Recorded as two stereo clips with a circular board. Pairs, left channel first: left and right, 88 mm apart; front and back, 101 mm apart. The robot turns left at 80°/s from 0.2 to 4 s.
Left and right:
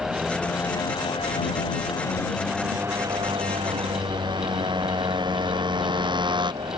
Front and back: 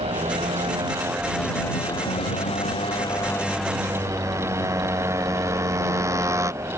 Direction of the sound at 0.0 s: 175° right.